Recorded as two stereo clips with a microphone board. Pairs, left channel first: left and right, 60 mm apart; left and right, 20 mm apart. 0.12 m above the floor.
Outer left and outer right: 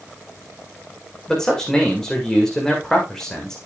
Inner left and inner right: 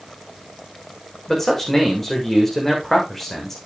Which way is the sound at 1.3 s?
10° left (ahead or behind).